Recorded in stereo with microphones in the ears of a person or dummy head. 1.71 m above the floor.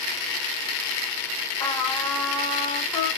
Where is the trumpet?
15° left (ahead or behind), 1.8 m.